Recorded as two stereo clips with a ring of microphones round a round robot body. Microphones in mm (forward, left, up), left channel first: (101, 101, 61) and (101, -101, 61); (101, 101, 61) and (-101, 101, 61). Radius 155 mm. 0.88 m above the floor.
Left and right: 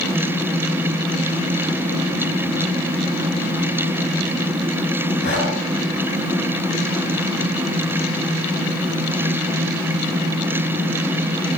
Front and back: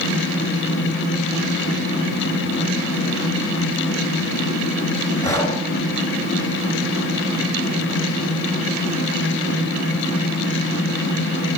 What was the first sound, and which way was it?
Breathing, 75° left.